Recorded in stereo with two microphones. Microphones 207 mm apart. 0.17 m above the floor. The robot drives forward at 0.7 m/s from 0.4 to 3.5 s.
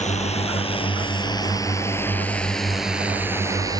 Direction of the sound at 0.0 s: 35° left (ahead or behind).